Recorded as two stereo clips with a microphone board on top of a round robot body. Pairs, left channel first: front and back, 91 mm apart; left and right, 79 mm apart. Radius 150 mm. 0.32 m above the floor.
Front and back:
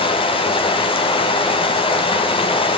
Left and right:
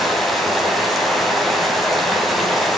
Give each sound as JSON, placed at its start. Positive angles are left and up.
{"t": 0.0, "sound": "running water", "azimuth_deg": 0, "distance_m": 2.5}